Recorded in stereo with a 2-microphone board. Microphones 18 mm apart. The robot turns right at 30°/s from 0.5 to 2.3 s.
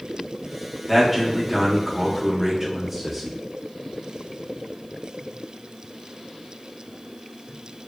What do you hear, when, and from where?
0.9 s a man speaking: 5° left (ahead or behind), 0.6 m; by 3.4 s 10° right (ahead or behind), 0.6 m